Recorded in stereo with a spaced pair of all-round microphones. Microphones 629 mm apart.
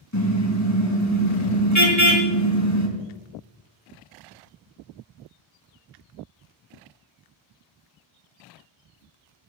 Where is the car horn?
25° left (ahead or behind), 3 m.